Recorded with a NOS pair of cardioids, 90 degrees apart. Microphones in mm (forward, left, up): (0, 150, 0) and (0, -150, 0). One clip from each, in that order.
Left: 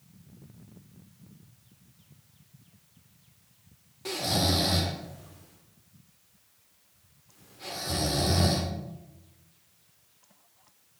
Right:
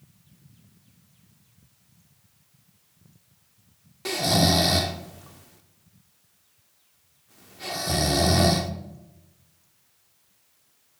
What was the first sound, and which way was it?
Snoring, 35° right.